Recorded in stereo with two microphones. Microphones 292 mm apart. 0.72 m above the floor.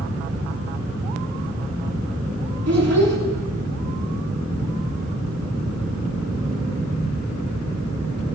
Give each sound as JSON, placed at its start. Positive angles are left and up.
{"t": 2.7, "sound": "a child speaking", "side_deg": -60, "distance_m": 4.0}